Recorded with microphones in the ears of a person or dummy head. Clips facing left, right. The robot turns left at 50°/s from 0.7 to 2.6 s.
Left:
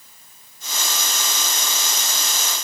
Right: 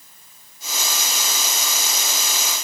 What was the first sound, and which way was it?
Only background noise.